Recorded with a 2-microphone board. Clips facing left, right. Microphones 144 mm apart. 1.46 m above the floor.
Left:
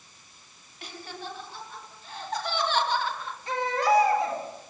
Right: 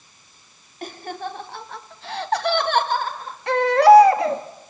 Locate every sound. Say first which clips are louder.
0.8 s laughter: right 9 dB; 50° right (ahead or behind), 3 m; by 3.4 s 40° right (ahead or behind), 2.5 m
3.5 s a baby crying: right 12 dB; 75° right (ahead or behind), 1.9 m